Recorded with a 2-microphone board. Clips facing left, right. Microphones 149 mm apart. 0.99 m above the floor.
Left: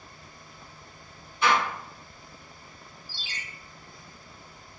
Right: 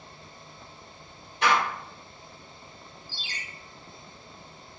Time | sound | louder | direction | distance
1.4 | a door slam | even | 85° right | 1.7 m
3.1 | a ringtone | even | 35° left (ahead or behind) | 0.9 m